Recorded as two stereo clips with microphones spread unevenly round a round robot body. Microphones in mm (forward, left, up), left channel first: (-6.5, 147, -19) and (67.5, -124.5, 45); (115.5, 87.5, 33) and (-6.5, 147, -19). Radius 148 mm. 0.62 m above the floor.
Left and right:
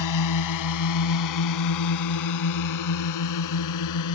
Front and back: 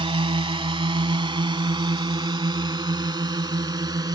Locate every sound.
0.0 s a drone: 105° left; by 4.2 s 90° left